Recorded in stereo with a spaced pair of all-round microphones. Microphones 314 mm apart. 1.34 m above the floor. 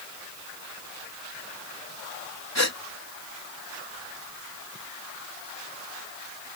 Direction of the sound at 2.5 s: 55° left (ahead or behind).